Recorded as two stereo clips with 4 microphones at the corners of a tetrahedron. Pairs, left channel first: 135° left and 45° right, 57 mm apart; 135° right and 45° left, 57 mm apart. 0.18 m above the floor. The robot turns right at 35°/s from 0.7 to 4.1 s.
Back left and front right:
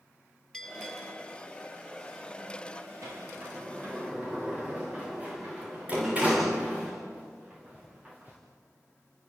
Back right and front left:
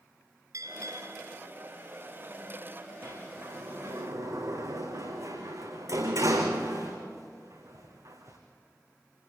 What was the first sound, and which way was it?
A bell, 55° left.